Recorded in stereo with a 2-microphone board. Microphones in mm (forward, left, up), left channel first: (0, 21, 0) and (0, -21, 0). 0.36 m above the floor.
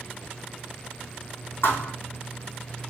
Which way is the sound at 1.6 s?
75° left (ahead or behind).